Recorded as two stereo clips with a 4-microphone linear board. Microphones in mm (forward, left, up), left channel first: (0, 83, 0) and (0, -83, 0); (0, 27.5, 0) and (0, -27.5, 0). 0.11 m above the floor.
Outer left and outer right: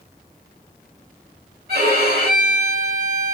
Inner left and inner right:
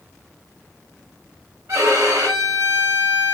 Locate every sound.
1.7 s a violin: 70° right (ahead or behind), 5 m